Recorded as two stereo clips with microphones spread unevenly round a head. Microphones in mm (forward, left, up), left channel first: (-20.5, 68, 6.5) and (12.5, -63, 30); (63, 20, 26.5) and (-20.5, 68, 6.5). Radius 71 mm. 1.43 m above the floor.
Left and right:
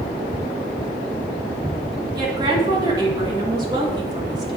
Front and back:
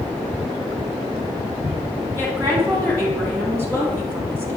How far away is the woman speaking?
About 1.6 m.